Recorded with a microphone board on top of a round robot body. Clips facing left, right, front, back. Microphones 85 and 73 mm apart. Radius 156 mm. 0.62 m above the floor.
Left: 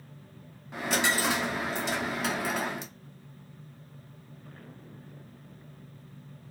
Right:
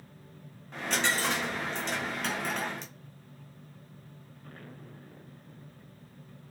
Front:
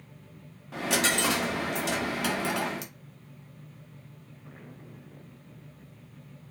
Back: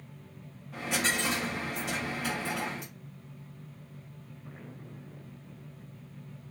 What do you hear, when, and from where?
0.7 s a dropped coin: 5° left, 0.8 m